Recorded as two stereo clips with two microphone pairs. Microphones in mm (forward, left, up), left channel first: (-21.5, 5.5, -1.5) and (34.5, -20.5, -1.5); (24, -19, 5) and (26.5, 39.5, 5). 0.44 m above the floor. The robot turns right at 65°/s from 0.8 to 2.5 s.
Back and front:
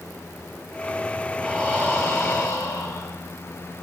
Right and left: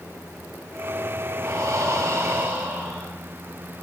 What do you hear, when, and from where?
1.4 s breathing: 70° left, 2.5 m; by 3.1 s 140° left, 2.5 m